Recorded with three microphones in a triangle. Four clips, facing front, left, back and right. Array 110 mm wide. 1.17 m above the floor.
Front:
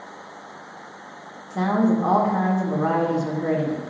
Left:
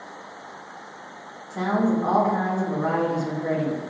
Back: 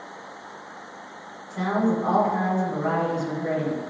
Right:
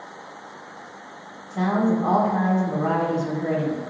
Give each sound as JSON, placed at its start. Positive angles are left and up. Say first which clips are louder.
{"t": 1.5, "sound": "a woman speaking", "louder": "right 1 dB, front 3 dB", "azimuth_deg": 10, "distance_m": 1.8}